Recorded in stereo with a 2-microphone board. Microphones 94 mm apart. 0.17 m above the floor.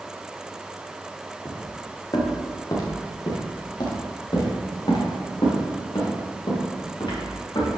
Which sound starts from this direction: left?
Footsteps, at 1.4 s.